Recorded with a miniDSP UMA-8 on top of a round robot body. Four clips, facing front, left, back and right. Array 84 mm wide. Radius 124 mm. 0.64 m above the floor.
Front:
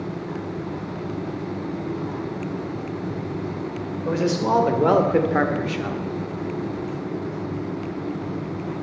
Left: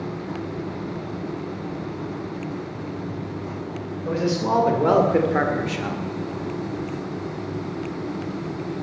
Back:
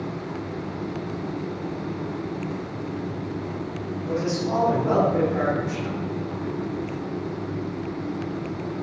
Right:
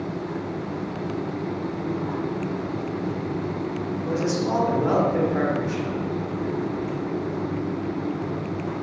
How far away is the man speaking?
About 3.5 m.